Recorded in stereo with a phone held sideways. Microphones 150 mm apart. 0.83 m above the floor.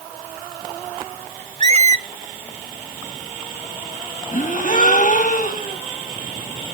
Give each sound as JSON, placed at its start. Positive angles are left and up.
{"t": 1.6, "sound": "a squeak", "side_deg": -50, "distance_m": 0.6}
{"t": 4.3, "sound": "a gasp", "side_deg": 60, "distance_m": 1.6}